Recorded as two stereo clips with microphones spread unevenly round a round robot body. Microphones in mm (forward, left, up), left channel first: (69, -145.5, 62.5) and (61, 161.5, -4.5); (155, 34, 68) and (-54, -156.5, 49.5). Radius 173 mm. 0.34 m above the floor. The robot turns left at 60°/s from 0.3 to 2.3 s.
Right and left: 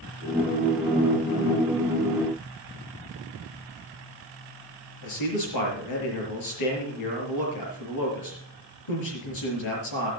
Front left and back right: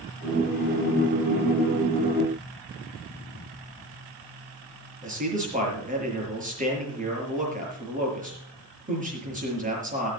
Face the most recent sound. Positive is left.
turn(degrees=-75)